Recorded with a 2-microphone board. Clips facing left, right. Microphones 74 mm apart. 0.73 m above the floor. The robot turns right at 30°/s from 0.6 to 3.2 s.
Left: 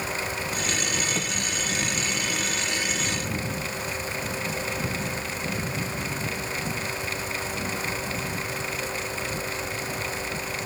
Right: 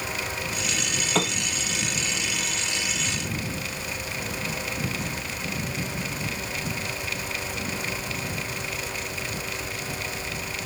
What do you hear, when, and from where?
1.1 s a piano: 75° right (ahead or behind); by 1.4 s 70° right (ahead or behind)